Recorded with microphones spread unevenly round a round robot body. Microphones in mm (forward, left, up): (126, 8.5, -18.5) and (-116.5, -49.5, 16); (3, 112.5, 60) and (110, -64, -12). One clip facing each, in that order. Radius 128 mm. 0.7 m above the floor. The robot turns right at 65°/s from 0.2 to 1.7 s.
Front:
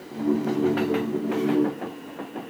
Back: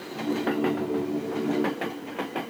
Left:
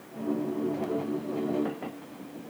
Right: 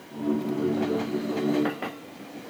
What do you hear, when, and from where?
Only background noise.